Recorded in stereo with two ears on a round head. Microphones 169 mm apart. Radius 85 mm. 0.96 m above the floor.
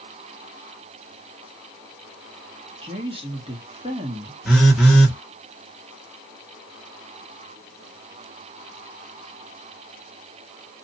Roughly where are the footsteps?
I don't hear footsteps.